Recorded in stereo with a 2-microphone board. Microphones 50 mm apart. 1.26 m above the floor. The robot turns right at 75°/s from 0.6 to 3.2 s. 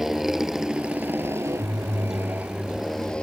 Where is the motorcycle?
170° right; by 3.2 s 25° left.